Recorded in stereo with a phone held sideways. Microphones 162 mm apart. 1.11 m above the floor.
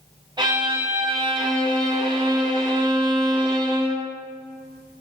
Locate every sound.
0.4 s a violin: 30° right (ahead or behind), 1.4 m